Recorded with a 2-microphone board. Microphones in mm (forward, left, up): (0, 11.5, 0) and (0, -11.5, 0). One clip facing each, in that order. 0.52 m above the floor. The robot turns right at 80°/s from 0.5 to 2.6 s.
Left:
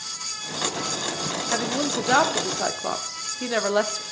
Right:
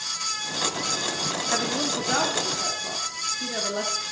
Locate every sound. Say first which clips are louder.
1.5 s a woman speaking: left 2 dB; 5° right, 0.8 m; by 4.0 s 85° left, 0.8 m